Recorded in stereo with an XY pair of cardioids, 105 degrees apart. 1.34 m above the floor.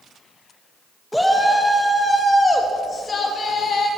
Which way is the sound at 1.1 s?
5° left.